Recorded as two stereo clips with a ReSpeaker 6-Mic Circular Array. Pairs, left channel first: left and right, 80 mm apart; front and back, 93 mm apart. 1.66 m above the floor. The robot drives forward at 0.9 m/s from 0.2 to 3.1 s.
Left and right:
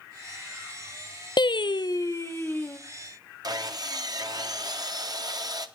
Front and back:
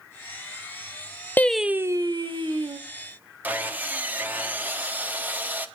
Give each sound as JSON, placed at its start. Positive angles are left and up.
{"t": 1.4, "sound": "singing", "azimuth_deg": 70, "distance_m": 0.5}
{"t": 3.4, "sound": "sawing", "azimuth_deg": -110, "distance_m": 0.9}